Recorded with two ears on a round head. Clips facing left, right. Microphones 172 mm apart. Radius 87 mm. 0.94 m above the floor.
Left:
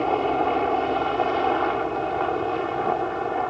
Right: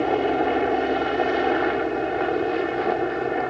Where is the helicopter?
15° right (ahead or behind); by 3.5 s 20° right (ahead or behind).